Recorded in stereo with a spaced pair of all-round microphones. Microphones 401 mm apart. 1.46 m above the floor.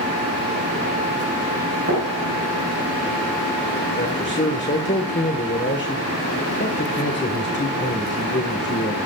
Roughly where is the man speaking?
Left.